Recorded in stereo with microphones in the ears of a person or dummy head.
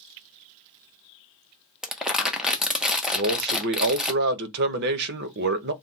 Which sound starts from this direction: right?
A man speaking, at 3.1 s.